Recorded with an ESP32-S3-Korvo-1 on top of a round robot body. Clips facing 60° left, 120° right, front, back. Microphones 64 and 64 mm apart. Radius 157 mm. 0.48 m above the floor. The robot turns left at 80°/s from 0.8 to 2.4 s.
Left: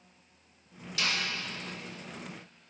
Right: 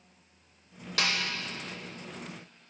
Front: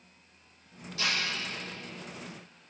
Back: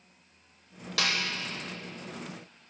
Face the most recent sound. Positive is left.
turn(degrees=85)